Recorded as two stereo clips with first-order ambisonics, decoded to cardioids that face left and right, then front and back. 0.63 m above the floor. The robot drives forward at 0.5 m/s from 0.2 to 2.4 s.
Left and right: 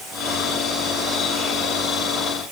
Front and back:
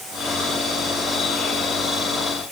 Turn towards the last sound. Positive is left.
No sound to turn to.